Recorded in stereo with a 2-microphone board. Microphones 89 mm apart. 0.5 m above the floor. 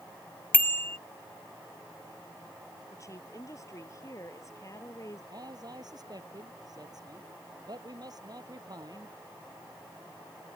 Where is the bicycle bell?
20° left (ahead or behind).